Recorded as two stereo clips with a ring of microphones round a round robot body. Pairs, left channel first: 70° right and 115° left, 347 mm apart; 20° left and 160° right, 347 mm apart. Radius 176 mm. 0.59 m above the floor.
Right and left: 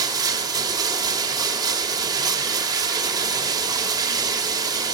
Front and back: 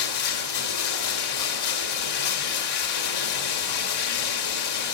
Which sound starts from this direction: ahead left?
Running water, at 0.0 s.